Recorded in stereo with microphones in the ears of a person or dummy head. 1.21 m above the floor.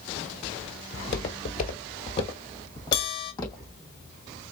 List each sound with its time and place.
0.9 s footsteps: 40° left (ahead or behind), 1.7 m; by 3.7 s 20° left (ahead or behind), 3.5 m
2.9 s a bell: 65° left (ahead or behind), 1.4 m